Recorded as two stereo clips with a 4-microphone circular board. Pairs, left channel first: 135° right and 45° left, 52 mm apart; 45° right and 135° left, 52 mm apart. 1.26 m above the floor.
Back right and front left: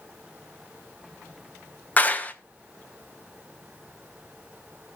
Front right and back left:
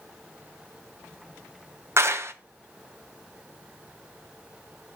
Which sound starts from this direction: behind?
A clap, at 2.0 s.